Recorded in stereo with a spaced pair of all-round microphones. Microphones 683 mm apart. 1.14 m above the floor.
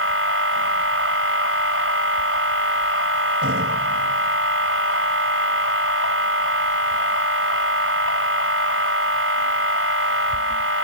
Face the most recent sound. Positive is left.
turn(degrees=-20)  # may be behind; listen again after turning